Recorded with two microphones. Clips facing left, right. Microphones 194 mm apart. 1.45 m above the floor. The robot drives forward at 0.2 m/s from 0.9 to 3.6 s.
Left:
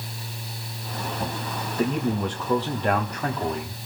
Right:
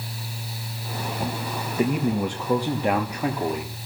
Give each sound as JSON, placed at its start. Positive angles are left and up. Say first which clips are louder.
{"t": 1.8, "sound": "a man speaking", "louder": "right 2 dB", "side_deg": -10, "distance_m": 1.4}